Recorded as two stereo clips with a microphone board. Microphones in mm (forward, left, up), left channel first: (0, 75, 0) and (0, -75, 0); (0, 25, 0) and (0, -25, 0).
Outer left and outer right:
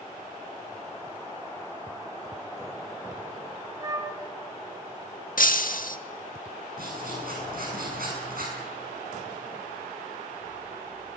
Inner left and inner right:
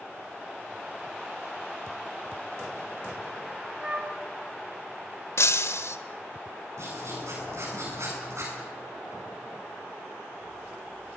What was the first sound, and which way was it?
A flute, 20° right (ahead or behind).